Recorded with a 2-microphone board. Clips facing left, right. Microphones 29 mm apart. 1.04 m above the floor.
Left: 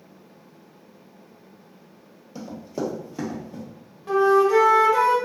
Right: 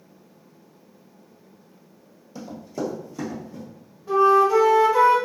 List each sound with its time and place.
2.4 s running footsteps: 15° left (ahead or behind), 1.6 m; by 3.6 s 50° left (ahead or behind), 1.9 m
4.1 s a flute: 85° left, 1.3 m